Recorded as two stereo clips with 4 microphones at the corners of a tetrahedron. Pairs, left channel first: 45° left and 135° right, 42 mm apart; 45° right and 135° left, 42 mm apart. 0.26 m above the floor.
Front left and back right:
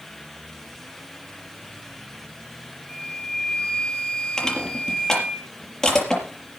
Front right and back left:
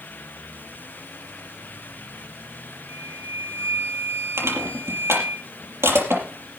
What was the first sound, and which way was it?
A flute, 120° left.